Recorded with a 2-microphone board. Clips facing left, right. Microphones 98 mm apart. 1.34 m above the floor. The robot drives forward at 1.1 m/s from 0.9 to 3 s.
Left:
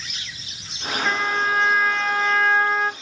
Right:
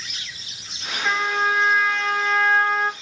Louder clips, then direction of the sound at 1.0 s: Right 1 dB; centre (ahead or behind).